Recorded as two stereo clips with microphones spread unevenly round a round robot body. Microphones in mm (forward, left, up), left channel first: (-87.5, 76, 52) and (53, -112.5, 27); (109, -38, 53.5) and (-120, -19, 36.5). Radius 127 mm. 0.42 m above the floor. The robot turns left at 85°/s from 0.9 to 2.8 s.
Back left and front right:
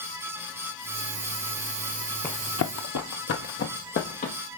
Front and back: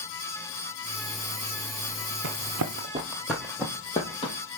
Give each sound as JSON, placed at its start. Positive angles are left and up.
{"t": 2.2, "sound": "running footsteps", "azimuth_deg": -150, "distance_m": 1.1}